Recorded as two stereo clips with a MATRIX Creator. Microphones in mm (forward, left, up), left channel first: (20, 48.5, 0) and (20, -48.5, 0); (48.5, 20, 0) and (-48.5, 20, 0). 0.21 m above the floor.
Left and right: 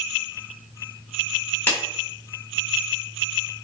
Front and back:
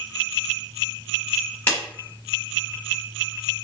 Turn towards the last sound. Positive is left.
turn(degrees=45)